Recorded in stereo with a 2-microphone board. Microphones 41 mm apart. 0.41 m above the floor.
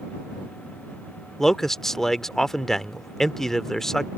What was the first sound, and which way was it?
A man speaking, 10° left (ahead or behind).